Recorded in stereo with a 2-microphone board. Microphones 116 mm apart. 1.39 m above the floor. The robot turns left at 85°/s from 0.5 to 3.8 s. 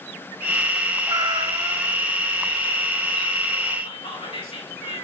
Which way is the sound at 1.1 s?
70° right.